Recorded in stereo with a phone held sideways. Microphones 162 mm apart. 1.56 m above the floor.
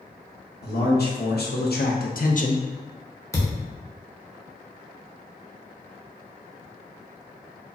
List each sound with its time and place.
0.6 s a man speaking: 80° left, 1.2 m; by 2.6 s 40° left (ahead or behind), 0.5 m
3.3 s a thud: 20° left (ahead or behind), 0.8 m